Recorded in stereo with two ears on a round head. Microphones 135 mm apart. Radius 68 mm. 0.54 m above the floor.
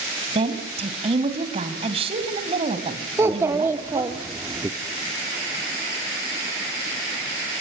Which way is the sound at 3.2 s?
15° right (ahead or behind).